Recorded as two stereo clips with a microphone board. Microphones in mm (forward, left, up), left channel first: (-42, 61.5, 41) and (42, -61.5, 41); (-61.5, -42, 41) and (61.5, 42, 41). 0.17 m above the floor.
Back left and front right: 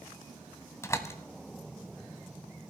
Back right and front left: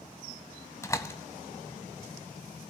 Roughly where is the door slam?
Behind.